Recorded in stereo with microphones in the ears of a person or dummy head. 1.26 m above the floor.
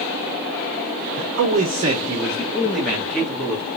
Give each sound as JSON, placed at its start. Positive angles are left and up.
{"t": 1.2, "sound": "a man speaking", "side_deg": -65, "distance_m": 0.8}